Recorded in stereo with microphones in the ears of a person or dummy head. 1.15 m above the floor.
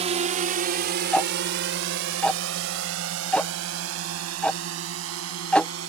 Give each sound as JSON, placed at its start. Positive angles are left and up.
{"t": 0.0, "sound": "a drone", "side_deg": -30}
{"t": 1.1, "sound": "ticking", "side_deg": 5}